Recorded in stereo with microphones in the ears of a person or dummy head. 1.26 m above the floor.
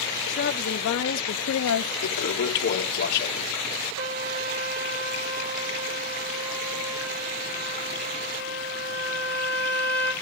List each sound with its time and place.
0.3 s a woman speaking: 60° left (ahead or behind), 2.0 m; by 1.9 s 80° left, 0.7 m
2.0 s a toilet flushing: 55° left (ahead or behind), 1.7 m
4.0 s a trumpet: 70° right (ahead or behind), 3.5 m